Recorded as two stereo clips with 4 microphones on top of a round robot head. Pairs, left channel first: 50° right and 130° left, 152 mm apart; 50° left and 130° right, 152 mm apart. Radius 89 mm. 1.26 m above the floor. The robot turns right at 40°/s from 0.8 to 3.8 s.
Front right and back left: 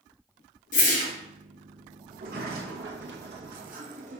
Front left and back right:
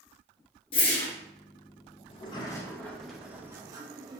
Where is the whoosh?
10° right, 1.2 m; by 1.1 s 5° left, 1.2 m.